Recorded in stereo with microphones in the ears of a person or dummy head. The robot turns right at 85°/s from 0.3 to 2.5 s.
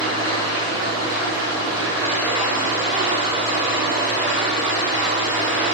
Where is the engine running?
35° left, 1.5 m; by 5.8 s 140° right, 1.5 m.